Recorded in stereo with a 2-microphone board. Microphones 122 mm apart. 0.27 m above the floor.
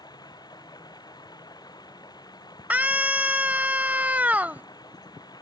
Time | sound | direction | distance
0.0 | running water | 35° left (ahead or behind) | ?
2.7 | a scream | 15° right (ahead or behind) | ?